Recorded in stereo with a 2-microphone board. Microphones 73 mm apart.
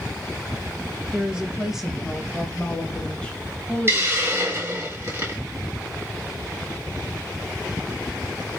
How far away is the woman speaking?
About 1.3 m.